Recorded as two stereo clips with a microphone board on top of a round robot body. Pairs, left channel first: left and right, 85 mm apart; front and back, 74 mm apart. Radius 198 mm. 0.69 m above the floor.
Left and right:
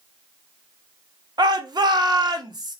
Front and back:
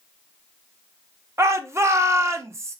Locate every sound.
1.4 s a shout: 125° right, 1.1 m